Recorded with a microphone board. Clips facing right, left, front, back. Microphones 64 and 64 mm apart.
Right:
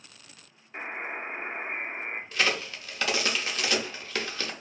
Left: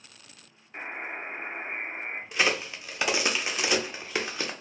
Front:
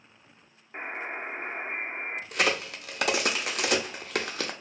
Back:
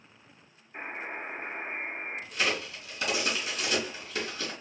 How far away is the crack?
About 0.5 m.